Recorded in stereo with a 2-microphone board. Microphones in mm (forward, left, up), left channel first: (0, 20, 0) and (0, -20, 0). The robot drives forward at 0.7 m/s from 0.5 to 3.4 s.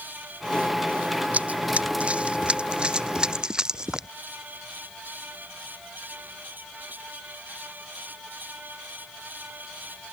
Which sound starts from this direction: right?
Running footsteps, at 1.3 s.